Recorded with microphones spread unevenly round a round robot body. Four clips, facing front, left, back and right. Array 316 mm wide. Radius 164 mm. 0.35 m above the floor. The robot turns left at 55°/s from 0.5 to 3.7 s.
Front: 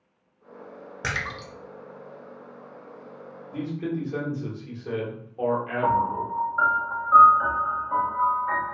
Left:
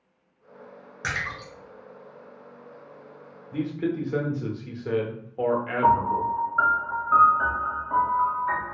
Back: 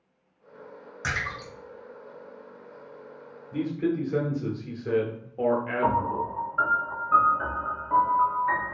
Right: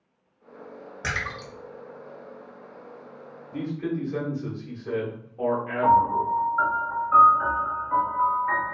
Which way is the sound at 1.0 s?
20° right.